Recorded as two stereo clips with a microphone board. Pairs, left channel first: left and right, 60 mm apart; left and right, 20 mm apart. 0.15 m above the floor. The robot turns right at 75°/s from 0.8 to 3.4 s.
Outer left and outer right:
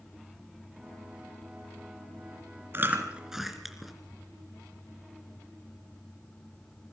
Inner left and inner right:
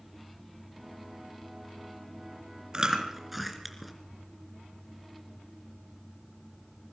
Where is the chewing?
40° right (ahead or behind), 2.5 m; by 3.9 s 5° right (ahead or behind), 2.5 m.